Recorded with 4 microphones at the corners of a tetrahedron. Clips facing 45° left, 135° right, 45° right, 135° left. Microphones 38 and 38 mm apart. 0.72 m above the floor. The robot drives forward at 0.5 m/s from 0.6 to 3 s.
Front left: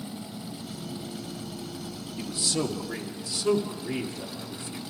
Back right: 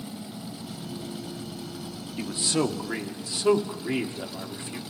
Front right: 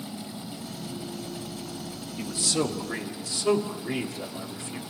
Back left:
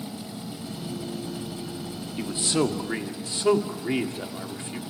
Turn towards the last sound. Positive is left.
turn(degrees=180)